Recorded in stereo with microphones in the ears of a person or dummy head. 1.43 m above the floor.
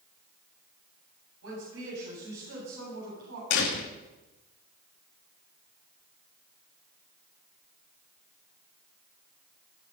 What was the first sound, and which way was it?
A woman speaking, 90° right.